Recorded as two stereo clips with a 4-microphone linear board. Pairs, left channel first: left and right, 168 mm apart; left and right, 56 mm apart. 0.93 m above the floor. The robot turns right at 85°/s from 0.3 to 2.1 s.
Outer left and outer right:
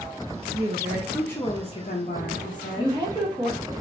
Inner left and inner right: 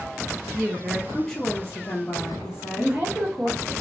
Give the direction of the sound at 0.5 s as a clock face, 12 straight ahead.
2 o'clock.